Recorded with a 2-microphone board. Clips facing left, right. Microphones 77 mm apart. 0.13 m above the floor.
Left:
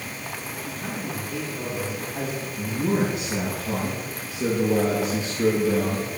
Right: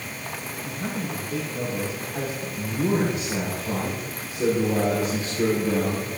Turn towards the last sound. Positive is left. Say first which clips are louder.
# even
turn(degrees=-60)  # may be behind; listen again after turning